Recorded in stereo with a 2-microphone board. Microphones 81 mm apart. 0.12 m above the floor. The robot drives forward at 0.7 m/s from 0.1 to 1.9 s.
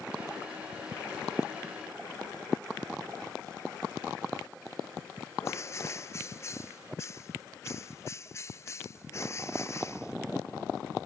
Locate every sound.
5.4 s a bird: 35° left (ahead or behind)